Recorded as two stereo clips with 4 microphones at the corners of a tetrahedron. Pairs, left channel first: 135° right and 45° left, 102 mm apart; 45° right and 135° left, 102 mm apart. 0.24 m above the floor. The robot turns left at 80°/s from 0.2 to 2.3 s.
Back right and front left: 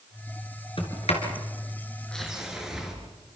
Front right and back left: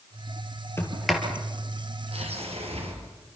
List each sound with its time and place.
0.8 s a sliding door: 110° right, 4 m; by 2.9 s 130° left, 4 m